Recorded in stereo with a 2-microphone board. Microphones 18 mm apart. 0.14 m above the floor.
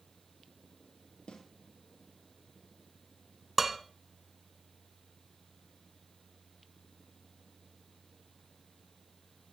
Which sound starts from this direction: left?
A snare drum, at 1.3 s.